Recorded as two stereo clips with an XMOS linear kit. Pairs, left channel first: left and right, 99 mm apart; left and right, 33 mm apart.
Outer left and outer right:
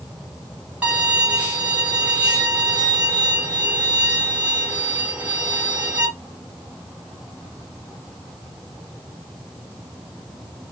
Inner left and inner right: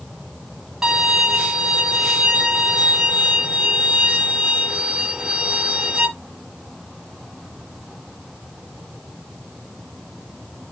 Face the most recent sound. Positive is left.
turn(degrees=-15)  # may be behind; listen again after turning